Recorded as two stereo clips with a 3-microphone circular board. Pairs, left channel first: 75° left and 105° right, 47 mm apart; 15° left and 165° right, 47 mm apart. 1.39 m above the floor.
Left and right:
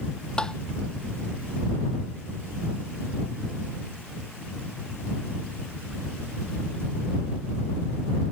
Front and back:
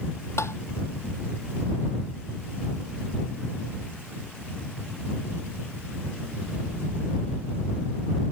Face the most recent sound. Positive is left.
turn(degrees=5)